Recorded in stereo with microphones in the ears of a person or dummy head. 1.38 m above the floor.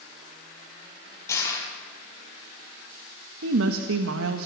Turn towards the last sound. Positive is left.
turn(degrees=-85)